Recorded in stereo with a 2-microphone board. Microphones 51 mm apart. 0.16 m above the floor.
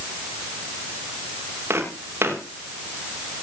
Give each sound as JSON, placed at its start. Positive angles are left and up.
{"t": 1.7, "sound": "footsteps", "side_deg": -50, "distance_m": 8.0}